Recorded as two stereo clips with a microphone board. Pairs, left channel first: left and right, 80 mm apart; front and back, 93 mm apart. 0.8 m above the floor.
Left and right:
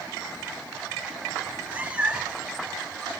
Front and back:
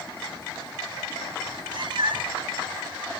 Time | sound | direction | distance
1.4 | a cat meowing | 150° right | 1.5 m